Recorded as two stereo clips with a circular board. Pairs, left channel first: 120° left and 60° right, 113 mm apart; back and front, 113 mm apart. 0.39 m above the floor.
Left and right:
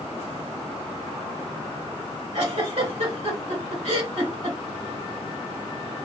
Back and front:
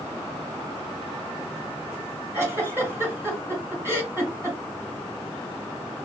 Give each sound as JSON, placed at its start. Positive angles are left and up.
{"t": 2.3, "sound": "a giggle", "azimuth_deg": -70, "distance_m": 2.0}